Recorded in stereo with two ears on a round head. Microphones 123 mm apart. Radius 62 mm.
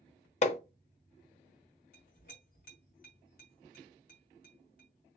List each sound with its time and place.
0.4 s hammering: 50° left (ahead or behind), 0.8 m
1.9 s a clink: 65° left (ahead or behind), 2 m